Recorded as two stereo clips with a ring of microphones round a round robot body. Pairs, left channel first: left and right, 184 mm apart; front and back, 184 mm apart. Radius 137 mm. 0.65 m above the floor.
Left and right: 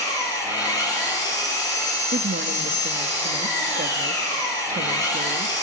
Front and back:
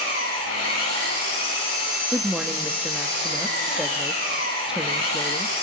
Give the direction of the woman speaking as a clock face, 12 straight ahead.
3 o'clock.